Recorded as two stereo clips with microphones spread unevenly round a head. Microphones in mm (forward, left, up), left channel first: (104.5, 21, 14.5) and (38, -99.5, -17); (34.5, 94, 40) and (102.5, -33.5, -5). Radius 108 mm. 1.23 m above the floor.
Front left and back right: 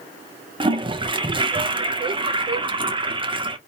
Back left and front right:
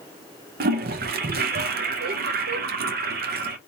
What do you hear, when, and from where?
0.6 s a toilet flushing: 65° right, 0.7 m